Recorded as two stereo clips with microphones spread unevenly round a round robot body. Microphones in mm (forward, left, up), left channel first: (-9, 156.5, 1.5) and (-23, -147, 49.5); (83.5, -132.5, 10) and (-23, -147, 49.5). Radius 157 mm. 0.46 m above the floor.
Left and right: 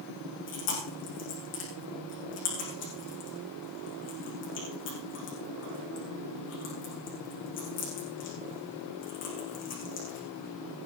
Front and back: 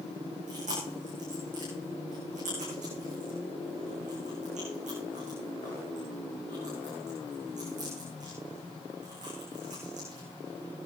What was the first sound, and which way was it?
Chewing, 140° left.